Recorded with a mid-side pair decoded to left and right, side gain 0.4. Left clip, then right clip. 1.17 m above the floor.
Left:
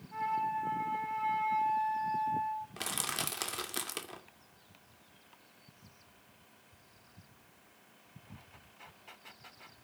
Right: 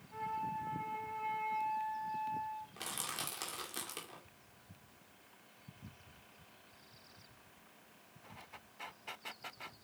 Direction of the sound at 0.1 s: 35° left.